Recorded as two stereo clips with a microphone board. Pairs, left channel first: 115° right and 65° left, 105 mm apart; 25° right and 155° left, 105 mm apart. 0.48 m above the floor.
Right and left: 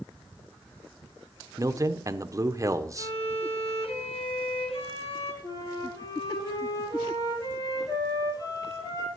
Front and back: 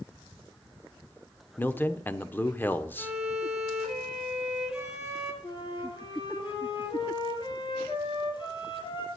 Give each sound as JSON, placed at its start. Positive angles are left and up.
{"t": 1.6, "sound": "a man speaking", "azimuth_deg": 35, "distance_m": 0.8}
{"t": 3.0, "sound": "a violin", "azimuth_deg": -120, "distance_m": 2.5}
{"t": 5.4, "sound": "a flute", "azimuth_deg": -60, "distance_m": 4.5}